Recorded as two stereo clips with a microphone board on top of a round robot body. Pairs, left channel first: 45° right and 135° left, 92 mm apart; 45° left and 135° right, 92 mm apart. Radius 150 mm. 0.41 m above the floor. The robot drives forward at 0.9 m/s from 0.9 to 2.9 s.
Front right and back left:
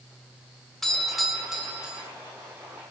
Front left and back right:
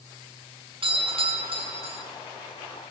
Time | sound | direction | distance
0.8 | a doorbell | 130° right | 3 m